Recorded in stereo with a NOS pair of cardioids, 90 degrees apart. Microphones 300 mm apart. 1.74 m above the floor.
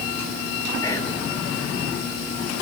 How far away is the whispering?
About 3.5 m.